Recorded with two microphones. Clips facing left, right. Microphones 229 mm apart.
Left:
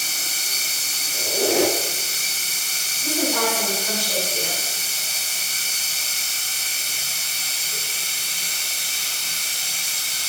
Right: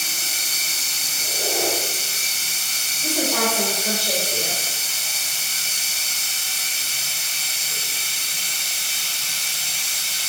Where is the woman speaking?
70° right (ahead or behind), 5 m.